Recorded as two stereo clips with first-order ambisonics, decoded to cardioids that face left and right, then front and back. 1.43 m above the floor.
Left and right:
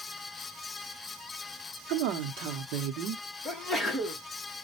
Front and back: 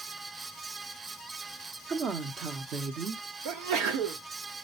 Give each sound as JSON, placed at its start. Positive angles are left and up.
{"t": 1.9, "sound": "a woman speaking", "azimuth_deg": -120, "distance_m": 0.9}
{"t": 3.5, "sound": "a sneeze", "azimuth_deg": 175, "distance_m": 1.2}